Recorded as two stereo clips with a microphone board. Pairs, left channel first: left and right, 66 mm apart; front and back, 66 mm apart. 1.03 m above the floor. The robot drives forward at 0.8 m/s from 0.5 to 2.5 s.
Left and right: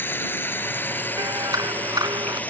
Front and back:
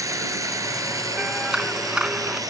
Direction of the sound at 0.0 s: 145° left.